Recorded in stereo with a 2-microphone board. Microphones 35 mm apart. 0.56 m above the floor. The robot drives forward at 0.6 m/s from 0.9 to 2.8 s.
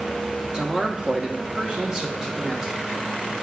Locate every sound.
0.5 s a man speaking: 25° right (ahead or behind), 0.6 m; by 2.9 s 15° right (ahead or behind), 1.2 m